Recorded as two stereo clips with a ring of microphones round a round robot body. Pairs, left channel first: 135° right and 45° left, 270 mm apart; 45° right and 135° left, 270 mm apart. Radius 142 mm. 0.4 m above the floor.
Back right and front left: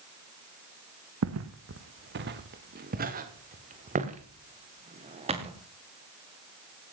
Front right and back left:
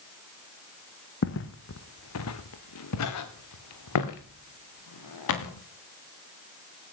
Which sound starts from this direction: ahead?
Footsteps, at 1.2 s.